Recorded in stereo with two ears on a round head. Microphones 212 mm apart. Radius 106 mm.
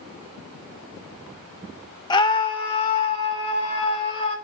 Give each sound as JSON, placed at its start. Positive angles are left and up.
{"t": 2.1, "sound": "a scream", "side_deg": 20, "distance_m": 1.2}